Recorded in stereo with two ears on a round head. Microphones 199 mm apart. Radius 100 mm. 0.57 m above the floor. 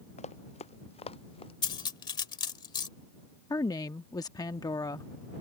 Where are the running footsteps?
30° left (ahead or behind); by 1.5 s 25° left (ahead or behind).